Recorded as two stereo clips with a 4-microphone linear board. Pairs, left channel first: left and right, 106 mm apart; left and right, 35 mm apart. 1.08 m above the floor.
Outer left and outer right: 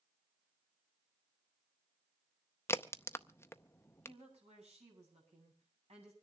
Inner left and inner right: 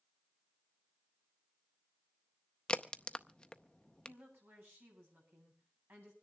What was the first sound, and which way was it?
A crack, 25° left (ahead or behind).